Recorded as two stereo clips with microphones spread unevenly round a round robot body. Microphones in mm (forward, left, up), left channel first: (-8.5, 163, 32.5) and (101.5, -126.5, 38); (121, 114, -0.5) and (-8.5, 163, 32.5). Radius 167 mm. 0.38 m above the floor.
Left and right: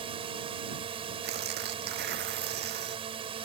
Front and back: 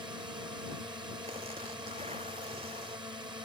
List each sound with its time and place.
0.0 s a drone: 135° right
1.2 s tearing paper: 130° right